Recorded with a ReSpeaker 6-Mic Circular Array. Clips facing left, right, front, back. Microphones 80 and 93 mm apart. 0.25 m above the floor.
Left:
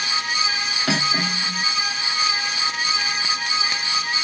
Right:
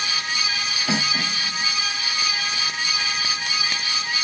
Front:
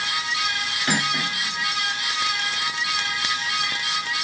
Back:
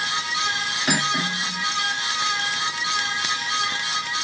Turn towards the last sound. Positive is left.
turn(degrees=105)